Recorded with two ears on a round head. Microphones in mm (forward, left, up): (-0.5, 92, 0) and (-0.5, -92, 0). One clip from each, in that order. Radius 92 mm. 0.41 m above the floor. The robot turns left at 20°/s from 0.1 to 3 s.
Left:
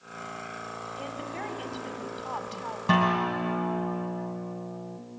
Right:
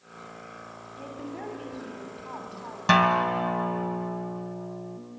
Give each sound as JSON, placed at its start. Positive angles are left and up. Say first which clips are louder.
{"t": 1.0, "sound": "a woman speaking", "louder": "even", "azimuth_deg": 115, "distance_m": 3.0}
{"t": 2.9, "sound": "a guitar", "louder": "right 4 dB", "side_deg": -50, "distance_m": 1.9}